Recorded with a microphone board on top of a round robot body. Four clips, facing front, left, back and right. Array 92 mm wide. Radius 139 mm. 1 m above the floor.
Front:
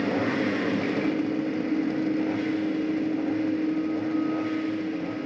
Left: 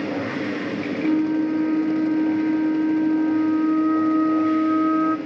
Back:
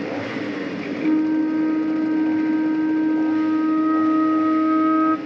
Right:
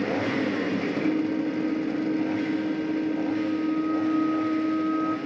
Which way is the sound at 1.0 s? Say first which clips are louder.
Left 8 dB, back 7 dB; 155° left.